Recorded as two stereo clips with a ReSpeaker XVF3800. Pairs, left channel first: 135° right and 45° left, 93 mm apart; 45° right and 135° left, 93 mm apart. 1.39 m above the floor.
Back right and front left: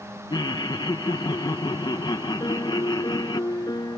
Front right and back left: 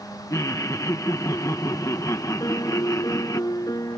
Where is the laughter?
100° right.